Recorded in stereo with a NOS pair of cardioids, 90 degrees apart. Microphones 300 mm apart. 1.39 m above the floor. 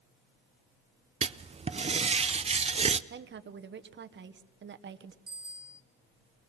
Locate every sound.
1.2 s writing: 20° right, 0.5 m
3.1 s a woman speaking: 40° right, 1.1 m
5.3 s a bicycle bell: 15° right, 2 m